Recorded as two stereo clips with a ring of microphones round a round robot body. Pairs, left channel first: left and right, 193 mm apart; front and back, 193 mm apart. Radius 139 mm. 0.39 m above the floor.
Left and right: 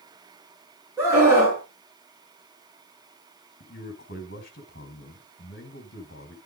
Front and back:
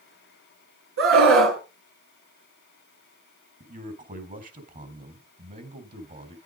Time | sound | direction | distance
1.0 | a scream | 170° right | 4.5 m
3.6 | a man speaking | 135° left | 3.5 m